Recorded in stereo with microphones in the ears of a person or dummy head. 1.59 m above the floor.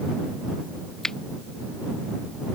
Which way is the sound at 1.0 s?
5° left (ahead or behind).